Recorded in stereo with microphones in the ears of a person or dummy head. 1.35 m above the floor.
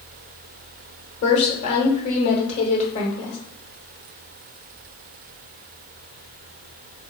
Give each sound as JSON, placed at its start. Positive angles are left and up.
{"t": 1.2, "sound": "a woman speaking", "side_deg": 45, "distance_m": 1.2}